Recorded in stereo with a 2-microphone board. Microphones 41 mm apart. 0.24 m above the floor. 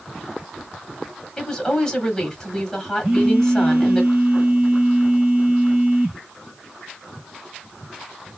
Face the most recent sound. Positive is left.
turn(degrees=-30)  # may be behind; listen again after turning